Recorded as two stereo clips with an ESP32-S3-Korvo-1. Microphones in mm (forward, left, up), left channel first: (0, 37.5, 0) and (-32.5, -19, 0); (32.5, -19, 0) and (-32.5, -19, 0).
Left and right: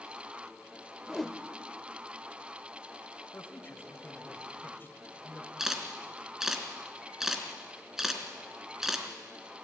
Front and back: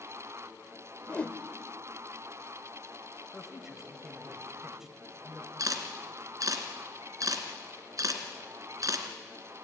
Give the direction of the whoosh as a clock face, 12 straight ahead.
1 o'clock.